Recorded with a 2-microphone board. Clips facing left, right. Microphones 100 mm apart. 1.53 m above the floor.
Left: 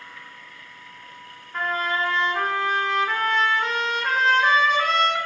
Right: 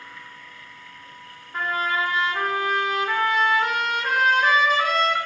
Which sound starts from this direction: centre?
A trumpet, at 1.5 s.